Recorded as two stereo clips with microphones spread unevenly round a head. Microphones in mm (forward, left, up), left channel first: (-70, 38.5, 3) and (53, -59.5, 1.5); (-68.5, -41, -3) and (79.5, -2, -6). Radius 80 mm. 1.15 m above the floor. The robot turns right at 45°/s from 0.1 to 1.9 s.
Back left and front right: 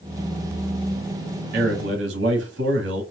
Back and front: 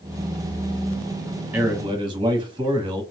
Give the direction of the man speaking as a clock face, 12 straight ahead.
2 o'clock.